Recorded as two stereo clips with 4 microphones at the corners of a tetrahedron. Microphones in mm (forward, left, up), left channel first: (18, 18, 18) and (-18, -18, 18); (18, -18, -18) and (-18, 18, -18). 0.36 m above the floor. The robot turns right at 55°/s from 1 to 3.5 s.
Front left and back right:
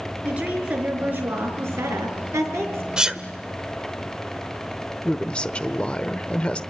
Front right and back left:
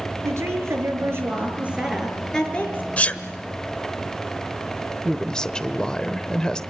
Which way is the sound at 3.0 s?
75° right.